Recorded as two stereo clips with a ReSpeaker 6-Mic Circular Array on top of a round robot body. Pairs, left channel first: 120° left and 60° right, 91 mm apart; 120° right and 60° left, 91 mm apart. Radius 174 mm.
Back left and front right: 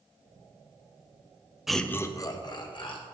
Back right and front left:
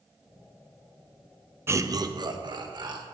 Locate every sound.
1.7 s laughter: 25° left, 0.8 m; by 3.0 s 95° left, 1.9 m